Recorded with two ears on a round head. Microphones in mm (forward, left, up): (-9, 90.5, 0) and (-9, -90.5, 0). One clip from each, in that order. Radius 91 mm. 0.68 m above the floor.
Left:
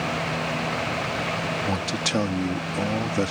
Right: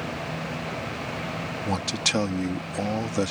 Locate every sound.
1.6 s a man speaking: 20° right (ahead or behind)